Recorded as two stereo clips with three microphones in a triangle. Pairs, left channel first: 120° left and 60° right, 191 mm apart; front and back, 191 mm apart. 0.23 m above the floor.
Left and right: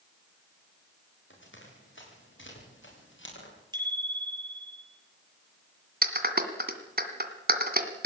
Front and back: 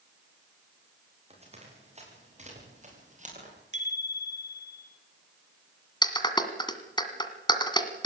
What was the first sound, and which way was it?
Running footsteps, 125° left.